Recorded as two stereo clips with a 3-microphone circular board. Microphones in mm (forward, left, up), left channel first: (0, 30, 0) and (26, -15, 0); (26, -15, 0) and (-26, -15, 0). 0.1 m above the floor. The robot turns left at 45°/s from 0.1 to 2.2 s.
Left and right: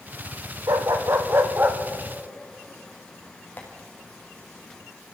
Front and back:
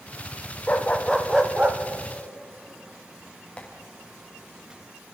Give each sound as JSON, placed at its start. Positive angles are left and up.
{"t": 0.7, "sound": "a dog barking", "azimuth_deg": -65, "distance_m": 2.0}
{"t": 3.6, "sound": "tapping", "azimuth_deg": 65, "distance_m": 4.0}